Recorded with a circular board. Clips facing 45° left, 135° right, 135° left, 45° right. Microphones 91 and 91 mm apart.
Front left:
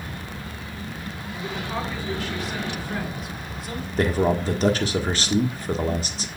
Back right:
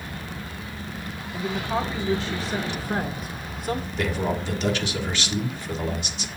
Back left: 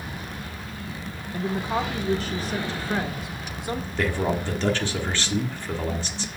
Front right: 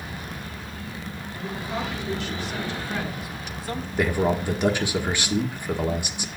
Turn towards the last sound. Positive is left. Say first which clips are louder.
# front left 9 dB, front right 3 dB
turn(degrees=25)